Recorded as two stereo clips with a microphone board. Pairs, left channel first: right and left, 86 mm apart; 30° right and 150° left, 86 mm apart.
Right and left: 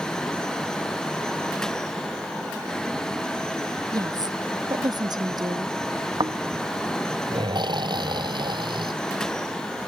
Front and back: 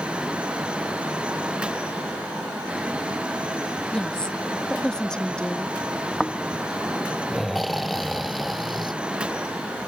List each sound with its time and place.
3.9 s a woman speaking: 50° left
6.2 s snoring: 60° left